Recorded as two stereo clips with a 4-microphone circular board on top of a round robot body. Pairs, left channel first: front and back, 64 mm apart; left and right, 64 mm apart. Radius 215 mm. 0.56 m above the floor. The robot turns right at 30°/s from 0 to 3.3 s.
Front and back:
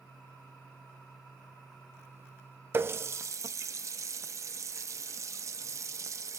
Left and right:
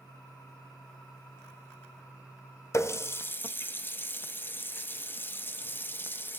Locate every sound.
2.7 s a running tap: 130° left, 0.5 m; by 6.4 s 145° left, 0.5 m